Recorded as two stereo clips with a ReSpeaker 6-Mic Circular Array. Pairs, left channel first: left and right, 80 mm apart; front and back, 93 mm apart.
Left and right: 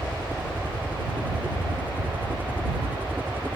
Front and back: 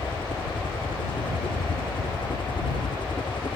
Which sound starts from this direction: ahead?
A helicopter, at 0.0 s.